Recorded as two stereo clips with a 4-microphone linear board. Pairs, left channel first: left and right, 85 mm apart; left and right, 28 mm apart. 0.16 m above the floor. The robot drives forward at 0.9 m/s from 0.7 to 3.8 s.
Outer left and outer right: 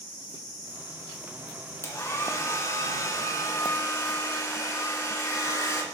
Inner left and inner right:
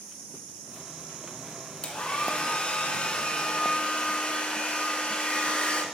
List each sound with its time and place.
1.8 s a hair dryer: 35° left (ahead or behind), 2 m